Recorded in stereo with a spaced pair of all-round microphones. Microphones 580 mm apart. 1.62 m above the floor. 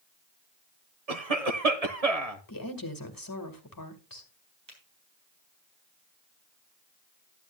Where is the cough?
85° right, 1.6 m.